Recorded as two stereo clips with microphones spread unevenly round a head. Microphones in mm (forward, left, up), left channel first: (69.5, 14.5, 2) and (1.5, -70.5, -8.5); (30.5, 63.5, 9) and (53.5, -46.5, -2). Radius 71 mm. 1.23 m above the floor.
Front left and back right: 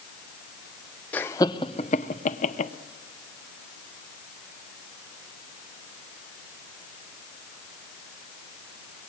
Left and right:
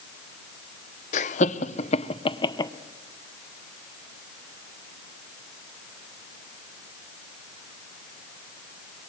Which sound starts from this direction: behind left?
Laughter, at 1.1 s.